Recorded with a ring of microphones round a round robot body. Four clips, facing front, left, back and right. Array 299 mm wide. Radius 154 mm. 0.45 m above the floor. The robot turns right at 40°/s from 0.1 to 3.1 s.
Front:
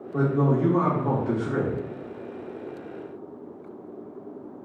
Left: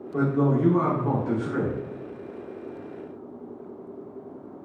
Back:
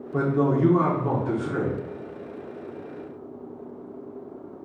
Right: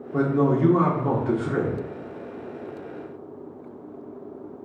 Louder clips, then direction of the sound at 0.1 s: Right 2 dB, back 1 dB; 130° right.